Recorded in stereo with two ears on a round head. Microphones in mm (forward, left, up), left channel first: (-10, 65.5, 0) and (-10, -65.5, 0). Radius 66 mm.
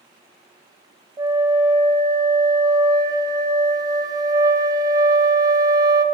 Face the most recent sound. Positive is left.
turn(degrees=-25)  # may be behind; listen again after turning